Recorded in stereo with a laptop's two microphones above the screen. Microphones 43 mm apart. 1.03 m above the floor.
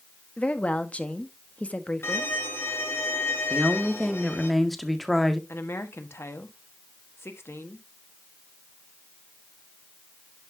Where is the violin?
70° left (ahead or behind), 2.5 m.